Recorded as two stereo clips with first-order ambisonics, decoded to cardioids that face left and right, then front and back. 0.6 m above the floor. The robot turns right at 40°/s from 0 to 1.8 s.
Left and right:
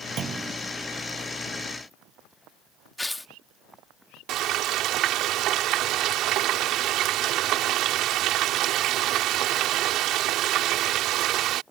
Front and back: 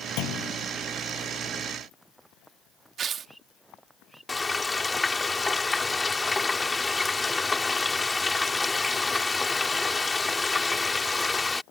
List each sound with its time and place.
0.2 s a clunk: 30° right; by 0.6 s 15° right
3.0 s tearing paper: 165° left
4.3 s frying: 75° right